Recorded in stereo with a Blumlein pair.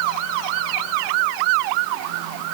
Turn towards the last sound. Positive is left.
No sound to turn to.